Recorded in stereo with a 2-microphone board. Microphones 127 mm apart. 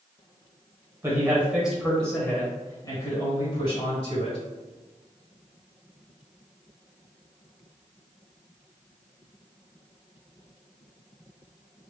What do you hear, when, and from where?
1.0 s a man speaking: 20° right (ahead or behind), 1.7 m; by 4.4 s 50° left (ahead or behind), 2.5 m